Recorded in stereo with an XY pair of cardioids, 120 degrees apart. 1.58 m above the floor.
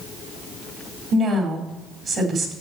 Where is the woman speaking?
50° right, 4 m.